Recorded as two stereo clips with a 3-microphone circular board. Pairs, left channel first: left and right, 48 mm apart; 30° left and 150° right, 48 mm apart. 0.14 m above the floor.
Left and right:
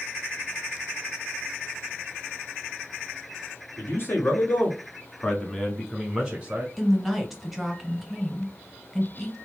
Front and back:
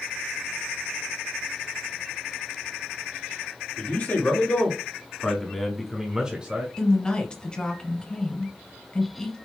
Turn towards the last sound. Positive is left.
turn(degrees=-10)